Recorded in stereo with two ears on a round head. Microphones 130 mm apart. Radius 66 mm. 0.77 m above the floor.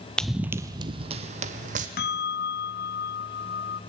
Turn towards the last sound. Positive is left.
turn(degrees=75)  # may be behind; listen again after turning